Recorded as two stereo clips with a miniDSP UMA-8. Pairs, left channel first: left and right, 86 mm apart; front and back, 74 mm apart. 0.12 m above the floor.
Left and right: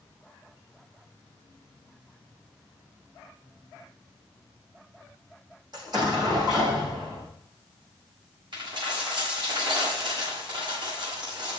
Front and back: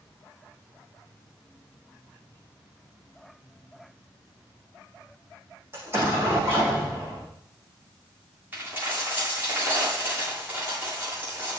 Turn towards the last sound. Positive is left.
turn(degrees=-115)